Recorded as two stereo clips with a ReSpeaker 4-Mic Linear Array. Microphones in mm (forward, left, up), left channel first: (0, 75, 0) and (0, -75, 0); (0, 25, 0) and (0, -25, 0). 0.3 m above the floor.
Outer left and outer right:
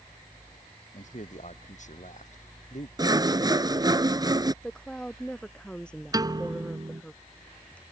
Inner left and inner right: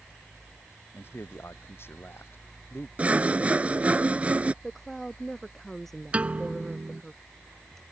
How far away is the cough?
No cough in this recording.